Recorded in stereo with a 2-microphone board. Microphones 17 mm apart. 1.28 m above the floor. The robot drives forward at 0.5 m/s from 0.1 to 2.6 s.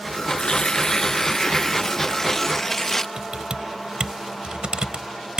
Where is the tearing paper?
50° left (ahead or behind); by 3.1 s 15° left (ahead or behind).